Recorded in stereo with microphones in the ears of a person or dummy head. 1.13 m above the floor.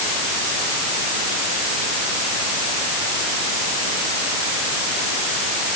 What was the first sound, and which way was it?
Only background noise.